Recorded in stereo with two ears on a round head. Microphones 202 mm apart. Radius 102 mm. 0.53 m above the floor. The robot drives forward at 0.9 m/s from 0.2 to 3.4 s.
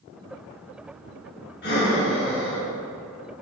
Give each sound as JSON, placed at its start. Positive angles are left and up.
{"t": 1.6, "sound": "breathing", "side_deg": 50, "distance_m": 3.5}